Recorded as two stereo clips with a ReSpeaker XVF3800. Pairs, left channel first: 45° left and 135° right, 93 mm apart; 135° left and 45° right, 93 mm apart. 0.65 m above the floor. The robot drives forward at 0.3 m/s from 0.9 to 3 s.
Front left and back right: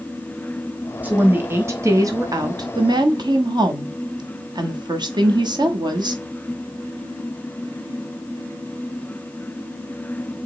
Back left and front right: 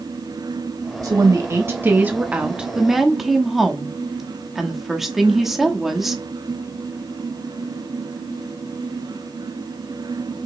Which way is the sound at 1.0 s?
70° right.